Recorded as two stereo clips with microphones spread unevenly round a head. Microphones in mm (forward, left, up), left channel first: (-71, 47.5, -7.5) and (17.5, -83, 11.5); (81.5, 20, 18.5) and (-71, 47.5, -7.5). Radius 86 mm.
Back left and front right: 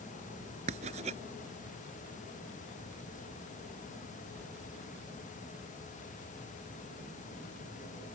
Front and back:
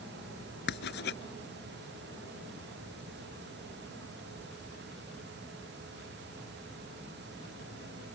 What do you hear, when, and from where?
0.7 s writing: straight ahead